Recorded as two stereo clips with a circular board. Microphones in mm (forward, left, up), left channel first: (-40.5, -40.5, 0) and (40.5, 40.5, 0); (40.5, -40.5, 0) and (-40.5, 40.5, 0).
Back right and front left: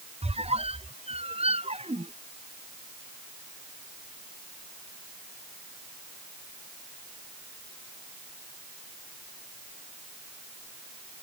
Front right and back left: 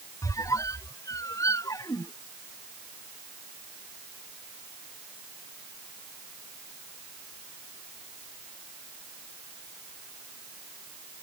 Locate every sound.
0.2 s a squeak: 15° left